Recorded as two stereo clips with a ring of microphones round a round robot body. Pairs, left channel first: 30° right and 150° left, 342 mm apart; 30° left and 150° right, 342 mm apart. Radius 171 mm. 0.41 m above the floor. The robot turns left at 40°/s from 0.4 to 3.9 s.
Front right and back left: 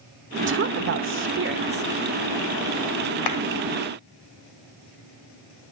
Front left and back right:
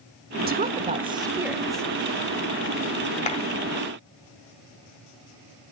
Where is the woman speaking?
170° left, 1.1 m; by 1.9 s 110° left, 1.1 m.